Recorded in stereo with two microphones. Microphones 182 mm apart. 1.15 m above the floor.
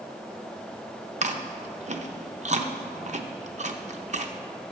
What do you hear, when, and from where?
1.2 s chewing: 40° right (ahead or behind), 0.7 m